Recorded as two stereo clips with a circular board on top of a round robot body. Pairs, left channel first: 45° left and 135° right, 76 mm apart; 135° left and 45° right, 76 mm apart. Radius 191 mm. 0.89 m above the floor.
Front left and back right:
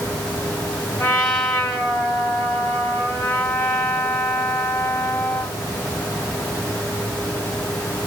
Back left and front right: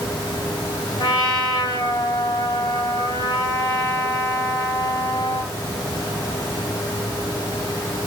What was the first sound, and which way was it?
A trumpet, 115° left.